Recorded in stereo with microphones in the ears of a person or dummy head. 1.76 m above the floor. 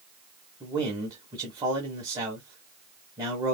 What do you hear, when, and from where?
0.6 s a man speaking: 20° right (ahead or behind), 1.4 m